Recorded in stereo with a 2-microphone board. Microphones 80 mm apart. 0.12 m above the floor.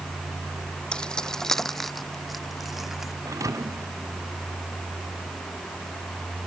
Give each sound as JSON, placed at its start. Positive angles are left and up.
{"t": 0.9, "sound": "keys jangling", "side_deg": 10}
{"t": 3.2, "sound": "a thud", "side_deg": -45}